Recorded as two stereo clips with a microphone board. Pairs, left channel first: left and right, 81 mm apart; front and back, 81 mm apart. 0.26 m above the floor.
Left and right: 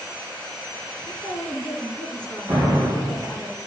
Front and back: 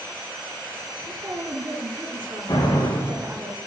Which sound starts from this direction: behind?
A woman speaking, at 1.1 s.